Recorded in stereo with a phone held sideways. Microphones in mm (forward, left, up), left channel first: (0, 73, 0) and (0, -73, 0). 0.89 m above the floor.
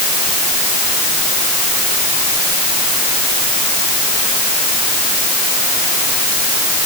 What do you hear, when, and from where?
Only background noise.